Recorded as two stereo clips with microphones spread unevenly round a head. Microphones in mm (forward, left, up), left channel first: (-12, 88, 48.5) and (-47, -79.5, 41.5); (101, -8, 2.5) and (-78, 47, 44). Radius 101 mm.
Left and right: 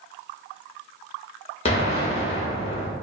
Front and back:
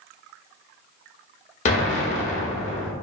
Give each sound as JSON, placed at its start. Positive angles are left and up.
{"t": 1.6, "sound": "an explosion", "azimuth_deg": 35, "distance_m": 0.5}